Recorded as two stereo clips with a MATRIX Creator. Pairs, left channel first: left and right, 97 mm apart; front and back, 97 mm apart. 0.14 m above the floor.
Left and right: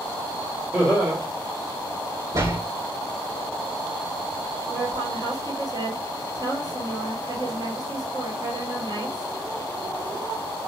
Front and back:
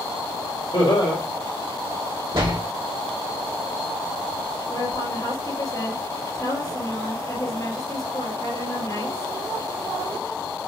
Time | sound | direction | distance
0.7 | laughter | 25° right | 4 m
2.3 | a door slam | 145° right | 4 m
4.7 | a woman speaking | 55° right | 5 m